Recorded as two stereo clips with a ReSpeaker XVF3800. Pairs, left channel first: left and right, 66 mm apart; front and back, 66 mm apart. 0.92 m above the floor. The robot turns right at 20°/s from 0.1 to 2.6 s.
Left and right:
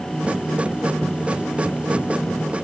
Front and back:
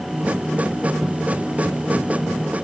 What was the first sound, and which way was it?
Only background noise.